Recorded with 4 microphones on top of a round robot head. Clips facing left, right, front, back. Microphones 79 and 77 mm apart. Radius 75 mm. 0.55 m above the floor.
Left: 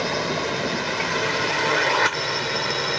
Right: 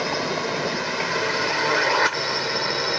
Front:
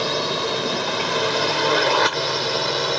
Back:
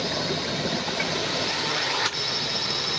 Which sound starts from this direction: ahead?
A drone, at 0.0 s.